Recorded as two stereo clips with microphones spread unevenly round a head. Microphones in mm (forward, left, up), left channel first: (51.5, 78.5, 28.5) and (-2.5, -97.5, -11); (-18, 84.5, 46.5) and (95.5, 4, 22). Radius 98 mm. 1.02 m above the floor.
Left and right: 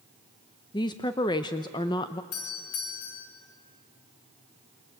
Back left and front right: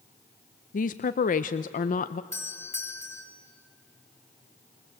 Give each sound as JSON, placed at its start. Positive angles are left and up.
{"t": 0.7, "sound": "a woman speaking", "azimuth_deg": 145, "distance_m": 0.6}
{"t": 2.3, "sound": "a doorbell", "azimuth_deg": 70, "distance_m": 5.0}